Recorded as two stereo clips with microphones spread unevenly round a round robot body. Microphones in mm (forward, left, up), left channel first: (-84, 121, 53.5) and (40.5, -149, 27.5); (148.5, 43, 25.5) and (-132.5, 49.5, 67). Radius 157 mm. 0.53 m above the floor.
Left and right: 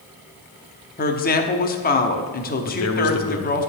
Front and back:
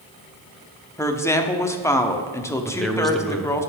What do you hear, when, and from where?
1.0 s a woman speaking: 65° left, 0.9 m
2.6 s a man speaking: 80° left, 1.0 m